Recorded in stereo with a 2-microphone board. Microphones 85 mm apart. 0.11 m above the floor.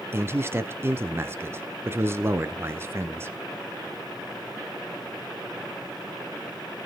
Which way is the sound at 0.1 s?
30° right (ahead or behind).